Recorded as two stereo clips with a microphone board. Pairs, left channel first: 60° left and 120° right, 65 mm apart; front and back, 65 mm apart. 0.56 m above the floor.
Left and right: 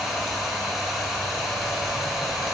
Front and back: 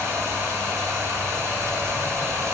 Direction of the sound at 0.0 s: 155° left.